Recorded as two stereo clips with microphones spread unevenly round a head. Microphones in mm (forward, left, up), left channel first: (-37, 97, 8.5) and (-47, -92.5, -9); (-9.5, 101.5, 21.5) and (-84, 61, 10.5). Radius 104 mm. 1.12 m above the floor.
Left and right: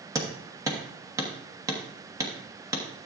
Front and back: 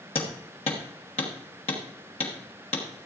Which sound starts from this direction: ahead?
Hammering, at 0.1 s.